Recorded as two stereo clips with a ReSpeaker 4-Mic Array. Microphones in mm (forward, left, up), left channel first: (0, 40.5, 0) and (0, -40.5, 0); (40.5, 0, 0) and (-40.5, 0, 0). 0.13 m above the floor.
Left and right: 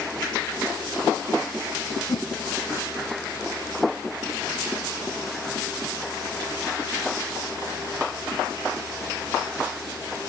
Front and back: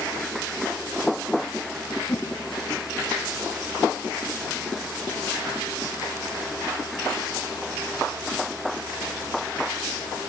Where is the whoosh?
60° left, 1.3 m.